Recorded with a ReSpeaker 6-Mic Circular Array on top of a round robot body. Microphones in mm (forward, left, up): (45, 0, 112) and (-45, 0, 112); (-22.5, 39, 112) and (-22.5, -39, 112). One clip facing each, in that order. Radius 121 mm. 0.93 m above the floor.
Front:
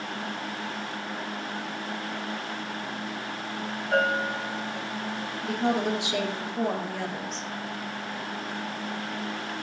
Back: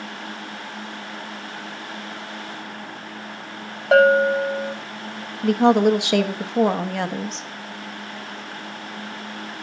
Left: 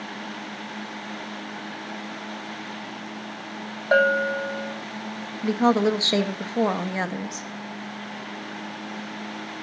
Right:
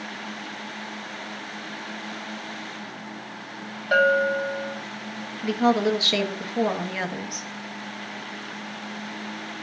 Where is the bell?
155° left, 0.8 m.